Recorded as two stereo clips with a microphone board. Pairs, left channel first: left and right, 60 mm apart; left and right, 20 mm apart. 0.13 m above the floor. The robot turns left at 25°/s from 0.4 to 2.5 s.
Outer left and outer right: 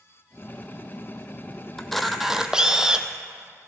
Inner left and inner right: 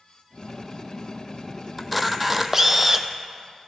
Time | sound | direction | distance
1.8 | a camera shutter | 5° left (ahead or behind) | 0.6 m